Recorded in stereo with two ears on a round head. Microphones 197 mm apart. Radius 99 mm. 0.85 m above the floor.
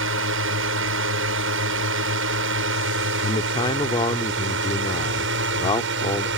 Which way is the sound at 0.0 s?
65° right (ahead or behind).